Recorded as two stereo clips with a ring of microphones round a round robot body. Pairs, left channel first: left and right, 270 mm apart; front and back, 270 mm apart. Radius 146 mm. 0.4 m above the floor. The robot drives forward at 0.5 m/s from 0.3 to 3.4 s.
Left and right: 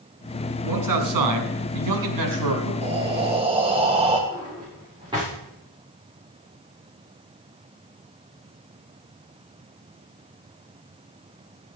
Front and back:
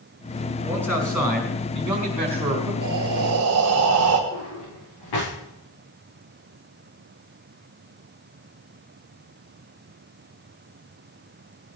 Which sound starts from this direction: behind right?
Breathing, at 2.8 s.